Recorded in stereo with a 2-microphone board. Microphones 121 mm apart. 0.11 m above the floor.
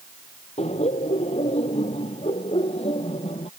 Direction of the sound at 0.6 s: 65° left (ahead or behind).